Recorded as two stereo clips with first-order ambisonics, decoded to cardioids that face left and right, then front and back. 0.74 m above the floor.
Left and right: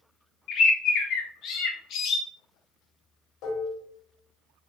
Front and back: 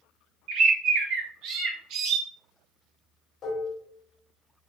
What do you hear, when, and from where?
0.5 s a bird: 140° left, 0.5 m
3.4 s dishes clattering: 65° left, 0.8 m